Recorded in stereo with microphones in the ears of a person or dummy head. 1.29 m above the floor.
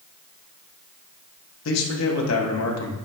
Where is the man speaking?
85° left, 1.3 m.